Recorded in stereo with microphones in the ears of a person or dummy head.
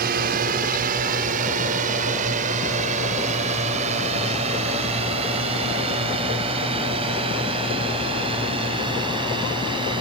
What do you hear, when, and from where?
0.0 s a drone: 50° right (ahead or behind); by 10.0 s 30° right (ahead or behind)